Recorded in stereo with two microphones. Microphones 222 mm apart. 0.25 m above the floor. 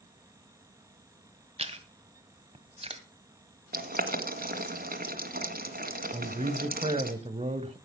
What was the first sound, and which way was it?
Chewing, 25° right (ahead or behind).